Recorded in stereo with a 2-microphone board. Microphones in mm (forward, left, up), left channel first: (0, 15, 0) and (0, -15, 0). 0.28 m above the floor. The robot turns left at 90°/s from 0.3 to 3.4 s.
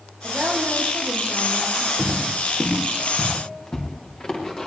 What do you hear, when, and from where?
0.2 s a woman speaking: 35° right, 5 m; by 1.9 s 175° right, 5 m
2.0 s footsteps: 85° right, 4 m; by 4.7 s 35° left (ahead or behind), 5.5 m